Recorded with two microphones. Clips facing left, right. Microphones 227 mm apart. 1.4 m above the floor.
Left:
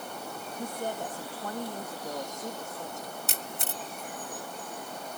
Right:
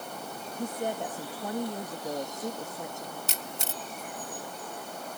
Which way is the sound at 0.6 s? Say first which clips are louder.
Right 3 dB; 20° right (ahead or behind).